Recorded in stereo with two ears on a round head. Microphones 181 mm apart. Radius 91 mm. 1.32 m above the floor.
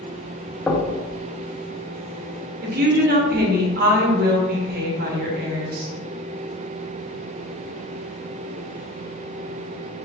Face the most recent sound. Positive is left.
turn(degrees=-50)  # may be behind; listen again after turning